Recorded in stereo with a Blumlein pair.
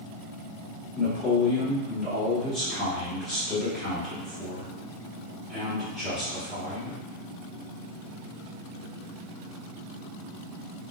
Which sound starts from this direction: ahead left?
A man speaking, at 0.9 s.